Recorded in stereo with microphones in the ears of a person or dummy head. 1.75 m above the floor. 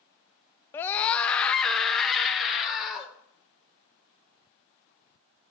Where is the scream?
10° left (ahead or behind), 0.6 m; by 3.1 s centre (ahead or behind), 2 m.